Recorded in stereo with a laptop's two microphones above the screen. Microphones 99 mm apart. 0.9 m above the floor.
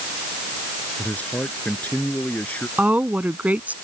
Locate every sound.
1.0 s a man speaking: 15° left (ahead or behind)
2.8 s a woman speaking: 15° right (ahead or behind)